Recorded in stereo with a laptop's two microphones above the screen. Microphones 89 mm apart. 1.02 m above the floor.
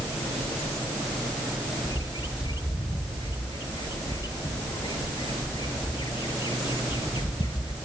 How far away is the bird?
About 1.0 m.